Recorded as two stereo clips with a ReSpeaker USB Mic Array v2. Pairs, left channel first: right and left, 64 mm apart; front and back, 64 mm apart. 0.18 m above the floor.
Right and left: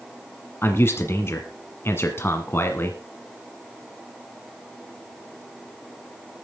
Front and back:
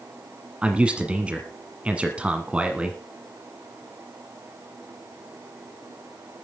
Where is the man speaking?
115° right, 1.4 m.